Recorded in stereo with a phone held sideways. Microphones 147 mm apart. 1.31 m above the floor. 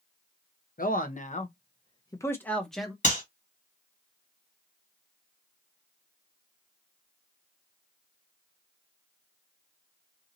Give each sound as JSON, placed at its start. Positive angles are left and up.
{"t": 0.8, "sound": "a man speaking", "side_deg": 70, "distance_m": 0.9}
{"t": 3.0, "sound": "a clap", "side_deg": 55, "distance_m": 1.9}